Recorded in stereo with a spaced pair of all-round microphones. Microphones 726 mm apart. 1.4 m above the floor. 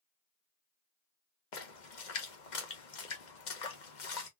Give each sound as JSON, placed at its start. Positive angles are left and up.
{"t": 1.5, "sound": "a splash", "side_deg": 75, "distance_m": 1.0}